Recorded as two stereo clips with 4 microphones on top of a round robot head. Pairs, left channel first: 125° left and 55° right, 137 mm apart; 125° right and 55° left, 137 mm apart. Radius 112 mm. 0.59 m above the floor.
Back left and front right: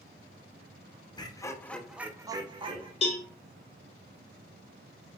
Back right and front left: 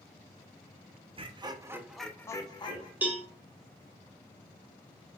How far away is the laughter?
About 0.7 m.